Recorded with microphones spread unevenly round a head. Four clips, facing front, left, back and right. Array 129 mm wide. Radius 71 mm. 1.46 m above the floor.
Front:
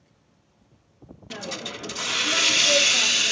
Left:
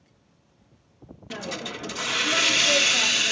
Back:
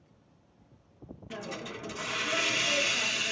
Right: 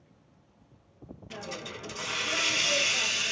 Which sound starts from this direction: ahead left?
A hiss, at 1.3 s.